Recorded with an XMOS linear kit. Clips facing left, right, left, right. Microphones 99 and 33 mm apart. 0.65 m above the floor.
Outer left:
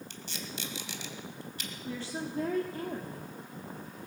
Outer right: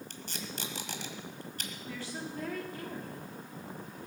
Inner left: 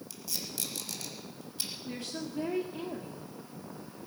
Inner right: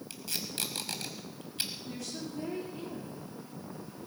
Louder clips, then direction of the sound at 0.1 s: Even, inner right 2 dB; 55° right (ahead or behind).